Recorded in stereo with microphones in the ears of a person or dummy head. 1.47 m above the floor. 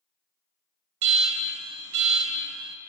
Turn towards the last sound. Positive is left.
turn(degrees=-70)  # may be behind; listen again after turning